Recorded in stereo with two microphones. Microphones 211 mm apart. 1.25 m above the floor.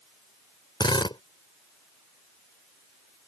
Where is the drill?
20° left (ahead or behind).